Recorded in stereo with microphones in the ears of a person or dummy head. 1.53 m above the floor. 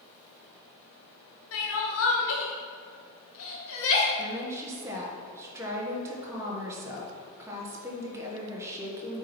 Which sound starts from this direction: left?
Crying, at 1.5 s.